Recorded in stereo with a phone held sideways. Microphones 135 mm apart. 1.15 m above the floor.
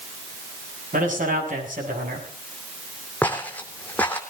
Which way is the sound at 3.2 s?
10° left (ahead or behind).